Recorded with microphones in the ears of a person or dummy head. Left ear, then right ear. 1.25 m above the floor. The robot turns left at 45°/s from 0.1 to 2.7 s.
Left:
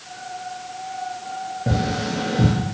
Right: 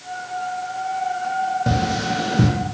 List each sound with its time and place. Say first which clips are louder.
1.7 s tapping: right 3 dB; 30° right (ahead or behind), 0.6 m; by 2.5 s 55° right (ahead or behind), 0.6 m